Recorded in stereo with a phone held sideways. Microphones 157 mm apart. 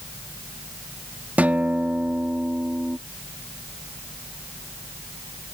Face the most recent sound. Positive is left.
turn(degrees=-10)  # may be behind; listen again after turning